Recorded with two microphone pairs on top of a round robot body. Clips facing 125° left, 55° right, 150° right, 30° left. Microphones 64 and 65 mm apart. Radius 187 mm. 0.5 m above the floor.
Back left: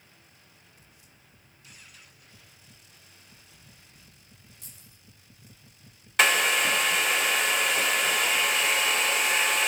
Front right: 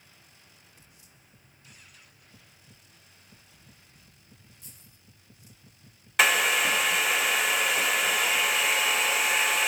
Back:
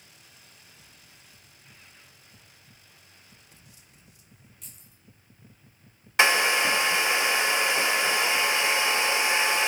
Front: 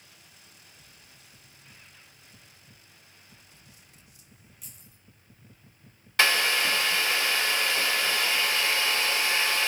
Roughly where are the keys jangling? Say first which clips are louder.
Back left 1 dB, front 1 dB; behind left.